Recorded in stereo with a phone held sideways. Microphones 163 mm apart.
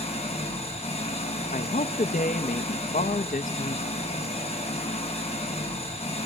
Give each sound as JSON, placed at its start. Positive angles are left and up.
{"t": 0.0, "sound": "an engine running", "side_deg": 40, "distance_m": 5.5}
{"t": 1.5, "sound": "a man speaking", "side_deg": 60, "distance_m": 0.8}